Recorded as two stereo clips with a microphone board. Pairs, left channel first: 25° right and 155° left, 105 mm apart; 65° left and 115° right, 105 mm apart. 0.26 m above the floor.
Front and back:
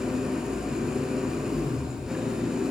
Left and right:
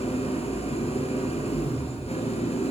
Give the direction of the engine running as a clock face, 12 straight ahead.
10 o'clock.